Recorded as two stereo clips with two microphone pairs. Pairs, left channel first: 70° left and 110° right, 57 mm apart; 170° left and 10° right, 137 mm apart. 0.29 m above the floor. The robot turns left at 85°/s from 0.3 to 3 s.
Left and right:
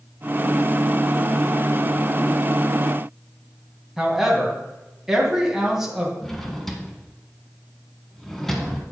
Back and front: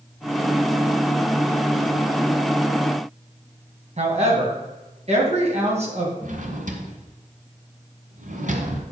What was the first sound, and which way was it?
A woman speaking, 30° right.